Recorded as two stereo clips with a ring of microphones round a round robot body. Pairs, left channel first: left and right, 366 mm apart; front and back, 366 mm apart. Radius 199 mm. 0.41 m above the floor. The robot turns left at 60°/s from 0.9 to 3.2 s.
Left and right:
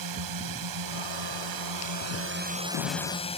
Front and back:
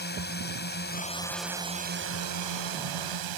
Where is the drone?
60° right; by 3.4 s 165° left.